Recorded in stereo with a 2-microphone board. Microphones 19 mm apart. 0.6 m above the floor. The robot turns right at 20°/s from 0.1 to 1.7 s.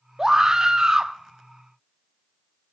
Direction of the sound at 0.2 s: 25° right (ahead or behind).